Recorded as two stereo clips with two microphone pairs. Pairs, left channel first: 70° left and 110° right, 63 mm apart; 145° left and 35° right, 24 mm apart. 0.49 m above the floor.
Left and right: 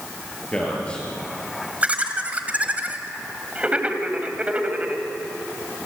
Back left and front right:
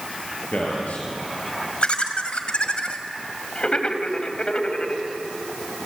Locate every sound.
0.5 s a man speaking: 145° left, 8.5 m
1.8 s laughter: 175° right, 2.5 m